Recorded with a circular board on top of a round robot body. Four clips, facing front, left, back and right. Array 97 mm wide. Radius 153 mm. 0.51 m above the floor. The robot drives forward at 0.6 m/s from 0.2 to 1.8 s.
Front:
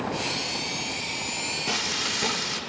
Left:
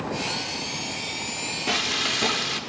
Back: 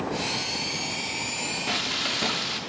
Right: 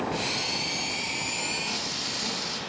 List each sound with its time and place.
1.7 s frying: 110° left, 1.7 m; by 2.6 s 115° left, 1.7 m